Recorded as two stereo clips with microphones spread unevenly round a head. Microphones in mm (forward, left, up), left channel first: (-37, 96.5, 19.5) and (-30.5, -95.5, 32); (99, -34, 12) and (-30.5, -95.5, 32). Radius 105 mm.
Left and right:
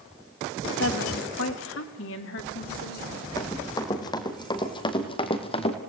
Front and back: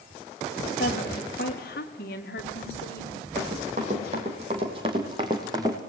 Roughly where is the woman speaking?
Left.